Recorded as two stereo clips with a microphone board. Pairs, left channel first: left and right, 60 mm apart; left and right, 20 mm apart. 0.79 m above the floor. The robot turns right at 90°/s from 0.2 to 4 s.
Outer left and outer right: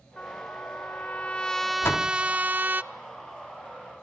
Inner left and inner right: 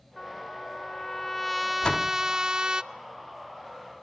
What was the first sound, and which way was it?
A trumpet, 40° left.